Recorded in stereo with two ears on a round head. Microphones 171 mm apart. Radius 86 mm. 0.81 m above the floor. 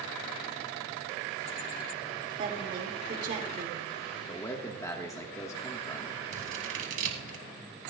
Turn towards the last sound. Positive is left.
turn(degrees=-40)  # may be behind; listen again after turning